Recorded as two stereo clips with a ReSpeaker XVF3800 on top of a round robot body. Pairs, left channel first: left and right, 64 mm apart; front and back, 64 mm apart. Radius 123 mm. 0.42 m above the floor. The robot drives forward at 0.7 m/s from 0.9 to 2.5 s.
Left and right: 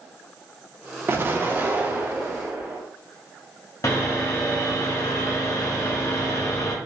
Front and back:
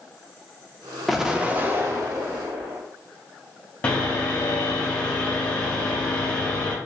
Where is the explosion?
90° right, 0.7 m; by 2.8 s 160° right, 1.2 m.